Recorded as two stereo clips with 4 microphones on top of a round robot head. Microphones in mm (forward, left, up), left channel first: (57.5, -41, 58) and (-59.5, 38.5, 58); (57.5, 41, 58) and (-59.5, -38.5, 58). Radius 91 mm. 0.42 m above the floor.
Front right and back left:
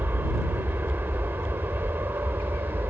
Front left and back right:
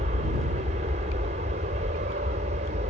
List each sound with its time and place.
0.0 s an aircraft: 140° right